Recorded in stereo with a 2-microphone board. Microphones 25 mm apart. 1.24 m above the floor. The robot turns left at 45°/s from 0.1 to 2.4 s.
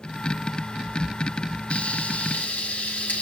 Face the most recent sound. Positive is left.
turn(degrees=90)